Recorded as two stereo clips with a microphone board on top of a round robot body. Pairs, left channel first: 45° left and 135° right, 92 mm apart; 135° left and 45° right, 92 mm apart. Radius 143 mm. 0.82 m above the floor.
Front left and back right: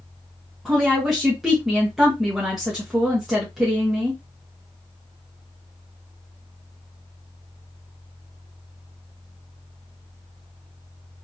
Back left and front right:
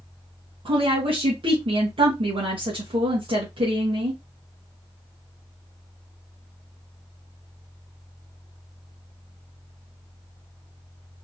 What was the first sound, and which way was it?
A woman speaking, 50° right.